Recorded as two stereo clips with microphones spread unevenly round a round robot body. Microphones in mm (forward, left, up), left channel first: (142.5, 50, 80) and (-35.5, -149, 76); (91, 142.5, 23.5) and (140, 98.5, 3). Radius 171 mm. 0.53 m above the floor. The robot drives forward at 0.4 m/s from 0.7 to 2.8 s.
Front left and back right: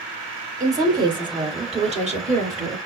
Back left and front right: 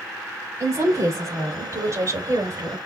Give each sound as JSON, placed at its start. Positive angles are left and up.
{"t": 0.6, "sound": "a woman speaking", "azimuth_deg": -55, "distance_m": 2.5}